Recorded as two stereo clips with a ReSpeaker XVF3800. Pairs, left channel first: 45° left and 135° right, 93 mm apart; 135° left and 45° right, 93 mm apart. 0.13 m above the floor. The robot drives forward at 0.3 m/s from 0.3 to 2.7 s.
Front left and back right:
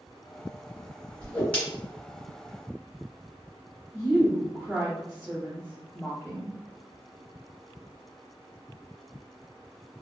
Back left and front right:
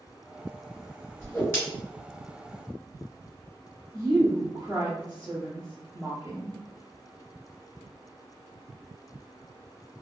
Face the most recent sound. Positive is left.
turn(degrees=-70)